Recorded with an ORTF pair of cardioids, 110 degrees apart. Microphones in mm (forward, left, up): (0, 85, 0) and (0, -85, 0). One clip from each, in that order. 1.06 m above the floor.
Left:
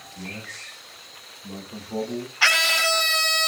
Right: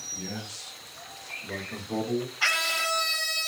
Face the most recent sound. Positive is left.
turn(degrees=35)